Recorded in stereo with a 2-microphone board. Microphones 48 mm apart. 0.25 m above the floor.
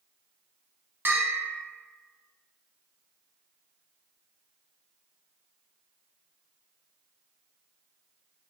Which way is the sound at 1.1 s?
50° right (ahead or behind).